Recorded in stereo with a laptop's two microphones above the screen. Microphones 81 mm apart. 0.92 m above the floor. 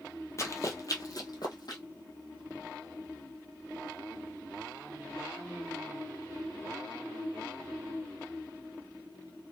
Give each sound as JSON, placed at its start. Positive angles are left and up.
{"t": 0.4, "sound": "running footsteps", "side_deg": 35, "distance_m": 1.2}